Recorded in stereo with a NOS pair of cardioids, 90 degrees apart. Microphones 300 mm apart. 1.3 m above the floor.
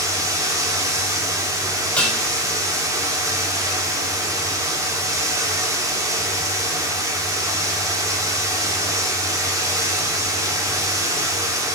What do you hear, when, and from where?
0.0 s running water: 10° right, 2.5 m
2.0 s dishes clattering: 5° left, 3 m